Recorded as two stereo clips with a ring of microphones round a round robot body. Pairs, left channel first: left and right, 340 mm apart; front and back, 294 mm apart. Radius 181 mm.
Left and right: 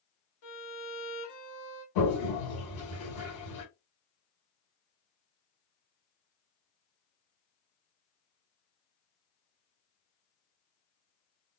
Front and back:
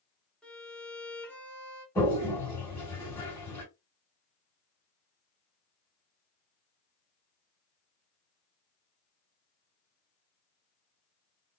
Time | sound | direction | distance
0.4 | a violin | 85° left | 1.1 m
1.9 | a toilet flushing | 80° left | 2.5 m